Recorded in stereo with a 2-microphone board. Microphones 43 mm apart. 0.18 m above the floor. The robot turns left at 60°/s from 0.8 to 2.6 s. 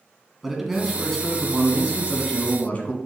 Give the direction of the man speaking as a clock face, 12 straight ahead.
6 o'clock.